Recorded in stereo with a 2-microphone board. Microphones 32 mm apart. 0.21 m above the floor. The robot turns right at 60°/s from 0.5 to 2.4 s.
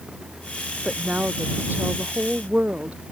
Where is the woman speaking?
145° right; by 3.0 s 55° right.